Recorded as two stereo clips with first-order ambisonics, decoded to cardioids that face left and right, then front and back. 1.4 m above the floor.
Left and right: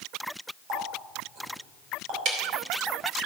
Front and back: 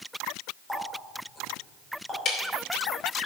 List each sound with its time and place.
0.7 s a running tap: 85° right, 5.5 m
2.2 s ticking: 60° right, 2.5 m